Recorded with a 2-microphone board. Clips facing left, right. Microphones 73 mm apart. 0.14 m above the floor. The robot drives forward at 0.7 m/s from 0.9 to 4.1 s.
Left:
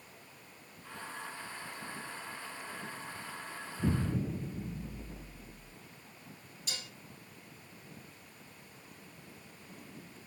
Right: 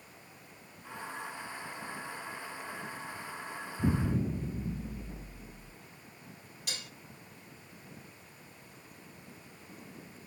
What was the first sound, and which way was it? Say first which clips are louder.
An explosion: right 2 dB; 10° right (ahead or behind).